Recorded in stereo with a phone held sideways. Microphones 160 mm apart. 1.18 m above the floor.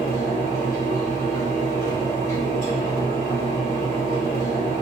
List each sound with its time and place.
0.0 s a fan: 20° left (ahead or behind), 1.9 m